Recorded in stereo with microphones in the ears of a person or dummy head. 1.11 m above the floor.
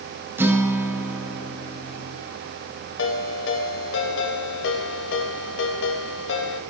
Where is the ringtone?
70° left (ahead or behind), 3 m.